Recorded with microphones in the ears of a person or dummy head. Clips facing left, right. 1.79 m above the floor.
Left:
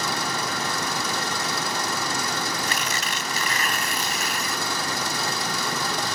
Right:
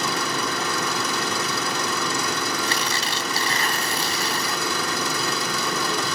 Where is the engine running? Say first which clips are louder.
Right 2 dB; 75° right (ahead or behind).